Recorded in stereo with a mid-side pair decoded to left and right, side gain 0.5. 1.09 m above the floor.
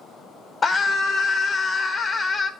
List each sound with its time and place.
0.6 s a scream: 30° left, 0.9 m